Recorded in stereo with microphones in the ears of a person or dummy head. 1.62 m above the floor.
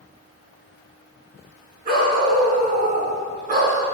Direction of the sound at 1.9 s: 50° right (ahead or behind).